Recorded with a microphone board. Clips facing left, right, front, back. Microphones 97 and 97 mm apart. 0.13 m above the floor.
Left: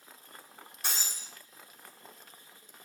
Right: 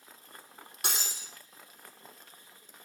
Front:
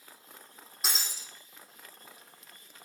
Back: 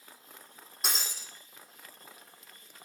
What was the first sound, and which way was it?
Breaking glass, 90° right.